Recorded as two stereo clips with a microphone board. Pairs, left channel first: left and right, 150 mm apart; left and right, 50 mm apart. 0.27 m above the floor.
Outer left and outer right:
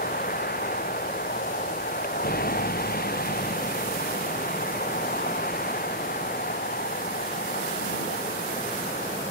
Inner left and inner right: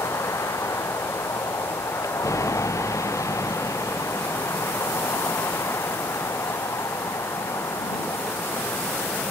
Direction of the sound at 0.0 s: 85° left.